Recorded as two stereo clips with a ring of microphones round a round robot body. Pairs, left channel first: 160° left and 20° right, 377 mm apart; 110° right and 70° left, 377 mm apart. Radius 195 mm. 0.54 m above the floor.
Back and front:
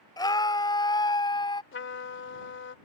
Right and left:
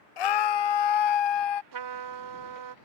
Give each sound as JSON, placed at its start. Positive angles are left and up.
{"t": 0.2, "sound": "a scream", "azimuth_deg": -125}
{"t": 1.7, "sound": "a trumpet", "azimuth_deg": 100}